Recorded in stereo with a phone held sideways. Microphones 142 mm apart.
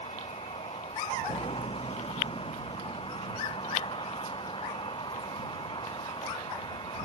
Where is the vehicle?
40° left (ahead or behind); by 7.0 s 35° left (ahead or behind).